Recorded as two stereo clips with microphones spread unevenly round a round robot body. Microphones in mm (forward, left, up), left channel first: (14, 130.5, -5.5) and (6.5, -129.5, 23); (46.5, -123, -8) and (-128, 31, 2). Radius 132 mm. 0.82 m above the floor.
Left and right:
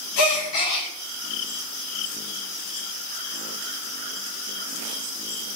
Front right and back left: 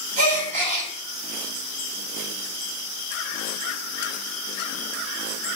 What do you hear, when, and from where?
0.2 s a gasp: 75° left, 1.5 m